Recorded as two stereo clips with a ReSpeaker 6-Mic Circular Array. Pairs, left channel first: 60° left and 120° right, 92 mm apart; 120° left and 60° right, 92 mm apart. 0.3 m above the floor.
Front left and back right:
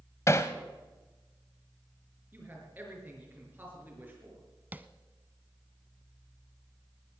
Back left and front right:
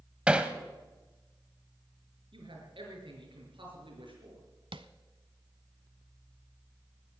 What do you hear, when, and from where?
0.3 s hammering: 15° left, 1.0 m
2.3 s a man speaking: 50° right, 5 m
4.7 s tapping: 50° right, 0.6 m